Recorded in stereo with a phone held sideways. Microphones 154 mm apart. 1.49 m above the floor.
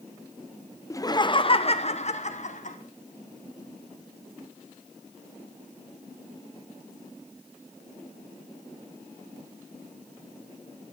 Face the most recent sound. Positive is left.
turn(degrees=55)  # may be behind; listen again after turning